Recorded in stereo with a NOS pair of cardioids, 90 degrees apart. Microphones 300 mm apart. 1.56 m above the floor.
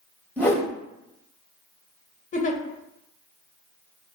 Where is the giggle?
25° left, 0.5 m.